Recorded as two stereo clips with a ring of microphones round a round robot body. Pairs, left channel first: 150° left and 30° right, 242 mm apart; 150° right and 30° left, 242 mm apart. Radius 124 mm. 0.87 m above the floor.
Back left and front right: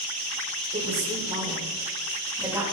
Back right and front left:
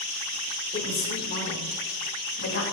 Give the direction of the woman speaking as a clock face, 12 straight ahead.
3 o'clock.